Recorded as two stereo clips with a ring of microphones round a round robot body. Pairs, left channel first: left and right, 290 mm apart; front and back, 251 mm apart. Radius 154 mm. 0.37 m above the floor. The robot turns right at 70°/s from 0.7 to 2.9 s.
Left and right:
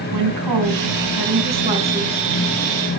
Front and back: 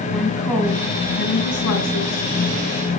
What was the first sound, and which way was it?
A woman speaking, 90° right.